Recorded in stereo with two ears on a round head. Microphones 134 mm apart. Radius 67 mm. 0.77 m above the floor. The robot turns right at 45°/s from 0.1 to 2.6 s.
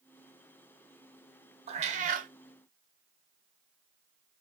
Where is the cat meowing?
40° right (ahead or behind), 0.7 m; by 2.3 s 55° right (ahead or behind), 0.7 m.